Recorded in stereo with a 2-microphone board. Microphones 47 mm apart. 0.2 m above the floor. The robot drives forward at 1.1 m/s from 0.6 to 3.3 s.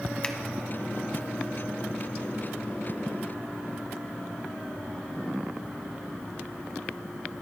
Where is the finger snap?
25° left (ahead or behind), 1.1 m.